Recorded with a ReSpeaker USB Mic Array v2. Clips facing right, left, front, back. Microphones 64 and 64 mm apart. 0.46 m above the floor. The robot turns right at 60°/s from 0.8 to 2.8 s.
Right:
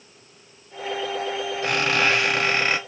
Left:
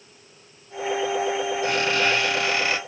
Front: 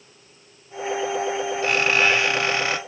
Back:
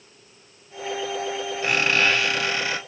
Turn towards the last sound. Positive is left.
turn(degrees=-35)